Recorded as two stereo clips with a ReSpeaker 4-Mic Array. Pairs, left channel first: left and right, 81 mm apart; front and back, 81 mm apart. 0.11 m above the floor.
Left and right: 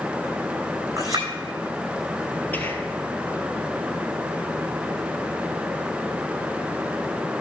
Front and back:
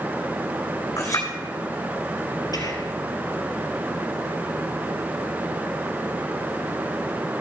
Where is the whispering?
25° left, 2 m.